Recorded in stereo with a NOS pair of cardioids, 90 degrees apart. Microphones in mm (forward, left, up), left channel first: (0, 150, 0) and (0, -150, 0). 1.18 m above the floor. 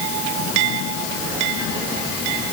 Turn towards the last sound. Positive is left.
No sound to turn to.